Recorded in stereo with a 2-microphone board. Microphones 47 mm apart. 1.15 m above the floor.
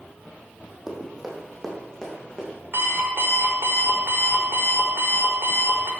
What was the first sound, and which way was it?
Running footsteps, 10° right (ahead or behind).